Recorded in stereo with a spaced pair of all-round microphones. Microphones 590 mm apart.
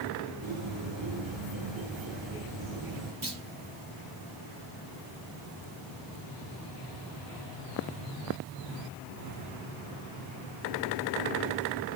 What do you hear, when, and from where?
0.4 s a bird: 45° right (ahead or behind), 4 m
3.2 s a clunk: 35° right (ahead or behind), 1.5 m